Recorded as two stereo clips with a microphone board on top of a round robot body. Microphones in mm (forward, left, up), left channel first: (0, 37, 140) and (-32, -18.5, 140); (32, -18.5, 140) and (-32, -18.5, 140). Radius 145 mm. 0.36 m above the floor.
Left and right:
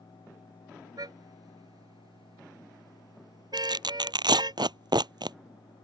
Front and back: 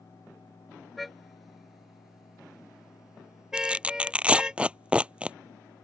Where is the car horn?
90° right; by 4.6 s 100° right.